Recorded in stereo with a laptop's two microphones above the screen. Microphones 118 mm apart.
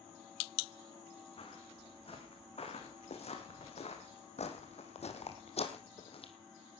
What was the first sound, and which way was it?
Footsteps, 55° left (ahead or behind).